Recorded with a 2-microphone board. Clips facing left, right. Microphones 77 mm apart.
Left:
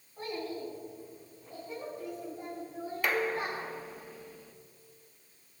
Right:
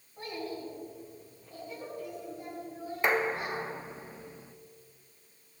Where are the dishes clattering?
25° right (ahead or behind), 0.6 m.